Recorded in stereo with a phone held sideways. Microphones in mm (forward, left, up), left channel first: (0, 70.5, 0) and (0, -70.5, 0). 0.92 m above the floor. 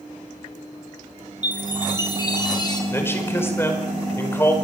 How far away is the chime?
About 4 m.